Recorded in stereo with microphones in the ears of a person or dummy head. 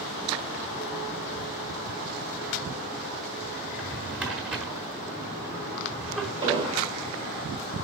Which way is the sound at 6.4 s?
30° right (ahead or behind).